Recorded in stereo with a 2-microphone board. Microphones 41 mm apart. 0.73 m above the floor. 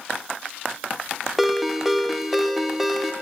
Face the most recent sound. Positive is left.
turn(degrees=0)  # may be behind; listen again after turning